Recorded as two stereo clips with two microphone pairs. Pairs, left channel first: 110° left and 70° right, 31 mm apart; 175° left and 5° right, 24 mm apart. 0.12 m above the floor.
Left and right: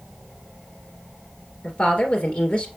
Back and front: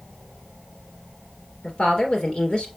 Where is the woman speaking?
150° left, 2.0 m.